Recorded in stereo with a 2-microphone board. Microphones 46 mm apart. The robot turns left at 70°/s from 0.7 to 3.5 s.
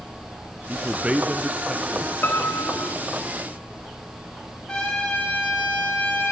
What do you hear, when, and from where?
0.7 s a man speaking: 115° right, 1.8 m; by 2.1 s 145° left, 1.8 m
2.2 s a piano: 135° left, 1.4 m; by 2.9 s 85° left, 1.4 m
4.7 s a trumpet: 20° left (ahead or behind), 10 m